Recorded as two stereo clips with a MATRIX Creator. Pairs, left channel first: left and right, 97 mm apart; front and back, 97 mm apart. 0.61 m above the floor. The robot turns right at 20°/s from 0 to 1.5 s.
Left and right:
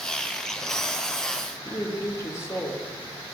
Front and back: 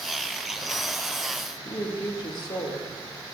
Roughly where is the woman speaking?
Ahead left.